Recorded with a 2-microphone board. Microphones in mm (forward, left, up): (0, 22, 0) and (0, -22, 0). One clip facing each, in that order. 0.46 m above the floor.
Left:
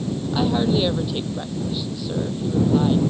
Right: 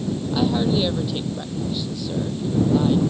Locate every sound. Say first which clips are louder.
0.3 s a woman speaking: even; 10° left (ahead or behind)